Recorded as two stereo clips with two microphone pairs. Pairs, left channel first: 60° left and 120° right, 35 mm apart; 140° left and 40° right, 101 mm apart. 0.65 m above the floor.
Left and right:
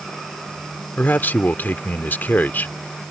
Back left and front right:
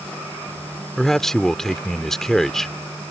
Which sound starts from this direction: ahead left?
A man speaking, at 1.0 s.